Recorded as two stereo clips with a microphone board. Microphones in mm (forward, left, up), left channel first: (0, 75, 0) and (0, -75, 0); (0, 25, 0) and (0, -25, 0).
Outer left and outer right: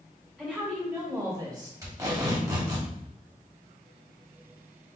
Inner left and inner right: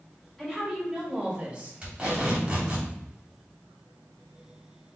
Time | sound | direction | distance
0.4 | a woman speaking | 5° right (ahead or behind) | 1.7 m
1.8 | tape being pulled | 25° right (ahead or behind) | 2 m